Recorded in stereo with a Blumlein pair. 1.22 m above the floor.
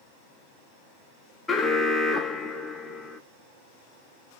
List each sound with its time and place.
1.5 s an alarm: 15° left, 0.6 m